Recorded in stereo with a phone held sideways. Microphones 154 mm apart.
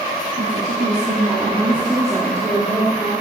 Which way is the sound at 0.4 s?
55° right (ahead or behind).